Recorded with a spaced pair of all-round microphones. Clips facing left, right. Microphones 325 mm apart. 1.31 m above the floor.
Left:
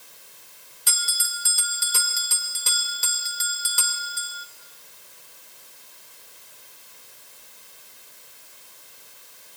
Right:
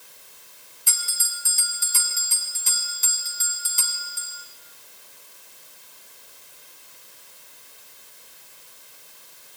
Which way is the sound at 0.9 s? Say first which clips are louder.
Left 5 dB; 75° left (ahead or behind).